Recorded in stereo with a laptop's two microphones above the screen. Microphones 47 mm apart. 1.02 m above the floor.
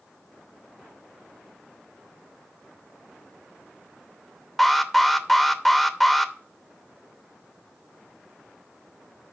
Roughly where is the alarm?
Centre.